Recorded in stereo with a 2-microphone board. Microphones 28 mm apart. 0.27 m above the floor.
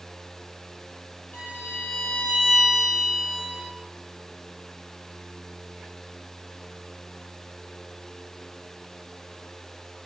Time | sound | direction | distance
1.3 | a violin | 70° left (ahead or behind) | 1.7 m